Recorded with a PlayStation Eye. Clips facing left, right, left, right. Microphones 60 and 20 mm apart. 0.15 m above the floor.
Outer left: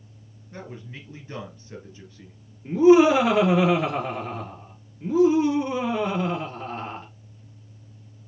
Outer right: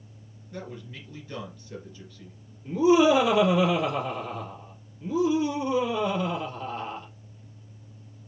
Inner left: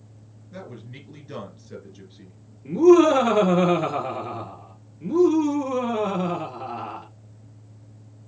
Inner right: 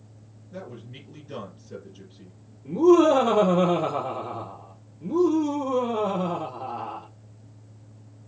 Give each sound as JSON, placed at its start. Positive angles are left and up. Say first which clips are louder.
{"t": 0.5, "sound": "a man speaking", "louder": "even, even", "side_deg": 35, "distance_m": 2.5}
{"t": 2.6, "sound": "laughter", "louder": "outer left 5 dB, inner left 2 dB", "side_deg": 55, "distance_m": 2.0}